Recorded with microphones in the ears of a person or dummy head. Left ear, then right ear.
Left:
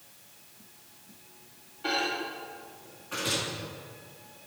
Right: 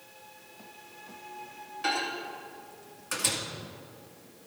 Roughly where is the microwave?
Right.